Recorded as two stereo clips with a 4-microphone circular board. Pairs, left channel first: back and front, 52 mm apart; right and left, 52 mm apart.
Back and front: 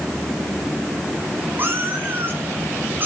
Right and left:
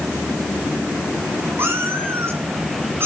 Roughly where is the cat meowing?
Ahead left.